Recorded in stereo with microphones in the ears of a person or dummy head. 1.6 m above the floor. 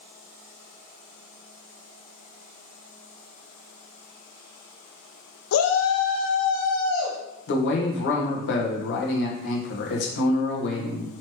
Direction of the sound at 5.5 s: 90° left.